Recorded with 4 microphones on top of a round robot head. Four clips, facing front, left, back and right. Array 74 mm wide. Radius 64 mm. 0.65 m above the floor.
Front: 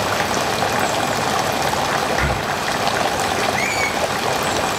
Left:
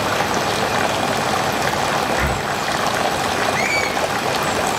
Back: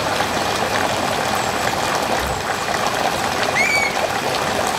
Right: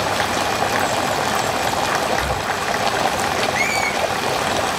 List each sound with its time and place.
2.2 s breathing: 45° left, 0.7 m
3.5 s a squeak: 170° right, 1.8 m